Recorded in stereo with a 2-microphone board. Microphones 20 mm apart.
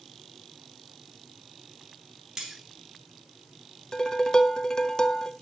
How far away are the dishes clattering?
About 1.0 m.